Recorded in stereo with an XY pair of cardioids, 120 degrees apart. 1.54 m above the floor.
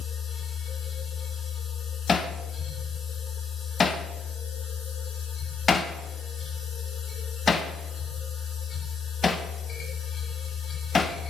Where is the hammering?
30° left, 1.2 m.